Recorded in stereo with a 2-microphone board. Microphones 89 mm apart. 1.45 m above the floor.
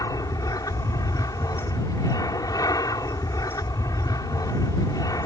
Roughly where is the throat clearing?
No throat clearing in this recording.